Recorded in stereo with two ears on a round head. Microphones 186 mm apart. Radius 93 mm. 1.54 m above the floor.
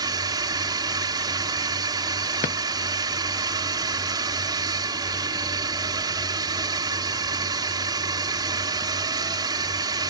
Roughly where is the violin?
No violin in this recording.